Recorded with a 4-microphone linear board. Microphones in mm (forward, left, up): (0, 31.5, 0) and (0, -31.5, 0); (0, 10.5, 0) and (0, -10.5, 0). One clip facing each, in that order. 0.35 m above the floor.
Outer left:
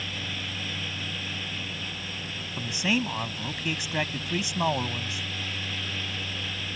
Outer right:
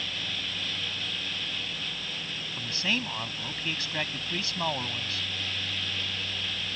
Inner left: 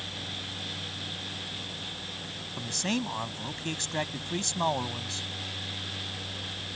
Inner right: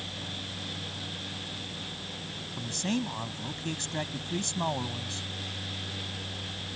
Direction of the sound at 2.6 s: 15° left (ahead or behind).